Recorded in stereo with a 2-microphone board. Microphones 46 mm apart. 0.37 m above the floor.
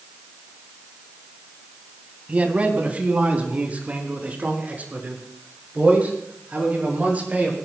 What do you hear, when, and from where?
2.3 s a man speaking: 30° right (ahead or behind), 3 m; by 7.6 s 35° right (ahead or behind), 8 m